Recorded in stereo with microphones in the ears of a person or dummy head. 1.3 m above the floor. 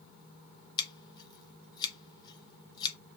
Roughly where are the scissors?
Left.